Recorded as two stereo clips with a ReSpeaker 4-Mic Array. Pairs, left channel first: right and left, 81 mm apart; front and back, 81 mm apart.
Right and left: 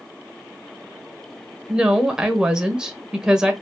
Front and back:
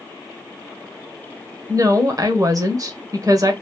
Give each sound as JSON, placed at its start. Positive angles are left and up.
{"t": 1.7, "sound": "a woman speaking", "azimuth_deg": 170, "distance_m": 1.1}